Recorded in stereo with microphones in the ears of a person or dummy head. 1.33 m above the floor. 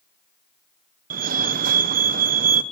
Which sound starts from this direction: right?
A fire alarm, at 1.1 s.